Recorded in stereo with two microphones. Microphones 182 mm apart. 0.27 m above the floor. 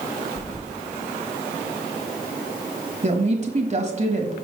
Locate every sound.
0.4 s keys jangling: 20° left (ahead or behind), 4 m
3.0 s a woman speaking: 45° right (ahead or behind), 1.3 m